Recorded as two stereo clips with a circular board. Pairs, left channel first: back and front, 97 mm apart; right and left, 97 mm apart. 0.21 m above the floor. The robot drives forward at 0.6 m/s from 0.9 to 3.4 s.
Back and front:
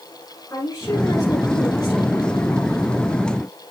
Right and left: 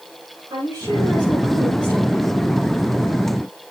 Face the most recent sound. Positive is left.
turn(degrees=140)